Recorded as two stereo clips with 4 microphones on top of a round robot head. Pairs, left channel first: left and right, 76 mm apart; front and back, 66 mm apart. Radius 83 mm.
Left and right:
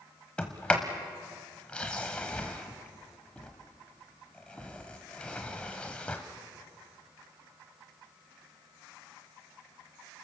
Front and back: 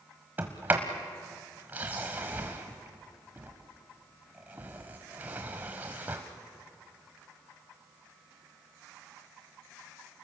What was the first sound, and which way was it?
A sliding door, 150° left.